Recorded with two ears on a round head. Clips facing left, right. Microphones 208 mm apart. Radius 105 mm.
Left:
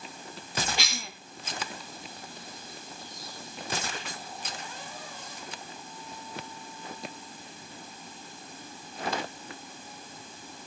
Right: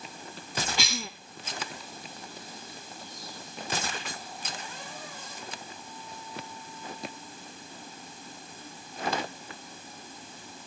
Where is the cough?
75° right (ahead or behind), 1.9 m.